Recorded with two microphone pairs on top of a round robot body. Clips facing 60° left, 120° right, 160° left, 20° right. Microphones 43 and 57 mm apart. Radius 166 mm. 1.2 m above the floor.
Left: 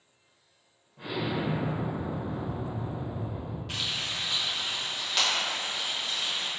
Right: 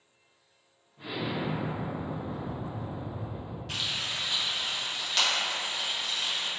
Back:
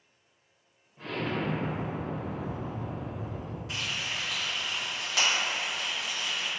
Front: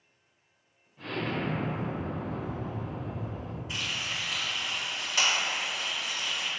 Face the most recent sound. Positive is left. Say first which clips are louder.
# even, even
turn(degrees=145)